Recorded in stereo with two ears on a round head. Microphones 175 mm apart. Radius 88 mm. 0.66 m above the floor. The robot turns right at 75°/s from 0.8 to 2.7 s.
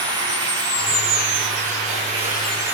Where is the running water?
155° right, 8 m; by 2.7 s 15° right, 8 m.